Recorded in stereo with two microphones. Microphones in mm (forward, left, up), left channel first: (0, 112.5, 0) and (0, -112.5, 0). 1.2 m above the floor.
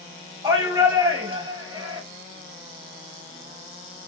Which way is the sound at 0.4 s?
20° right (ahead or behind).